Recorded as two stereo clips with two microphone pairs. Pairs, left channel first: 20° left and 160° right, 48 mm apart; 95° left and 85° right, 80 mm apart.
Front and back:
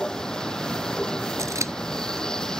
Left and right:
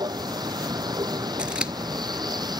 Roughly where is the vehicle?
Ahead right.